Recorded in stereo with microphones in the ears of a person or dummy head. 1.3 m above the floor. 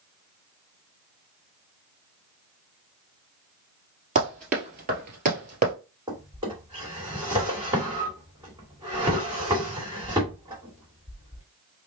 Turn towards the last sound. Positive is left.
turn(degrees=-15)  # may be behind; listen again after turning